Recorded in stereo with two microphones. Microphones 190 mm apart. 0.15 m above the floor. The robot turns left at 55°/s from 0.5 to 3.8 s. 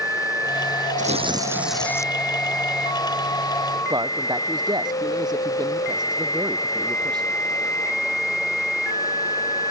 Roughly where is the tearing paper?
Behind right.